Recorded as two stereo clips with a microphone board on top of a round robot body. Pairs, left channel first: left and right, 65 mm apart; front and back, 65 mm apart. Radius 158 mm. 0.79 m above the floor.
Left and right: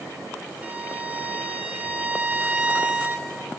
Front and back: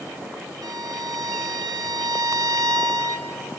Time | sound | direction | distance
0.6 | a violin | 160° right | 1.1 m